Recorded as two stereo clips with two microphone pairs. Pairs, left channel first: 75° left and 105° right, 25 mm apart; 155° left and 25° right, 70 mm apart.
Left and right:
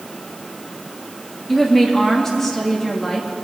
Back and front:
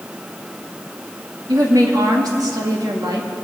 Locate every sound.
1.5 s a woman speaking: straight ahead, 2.5 m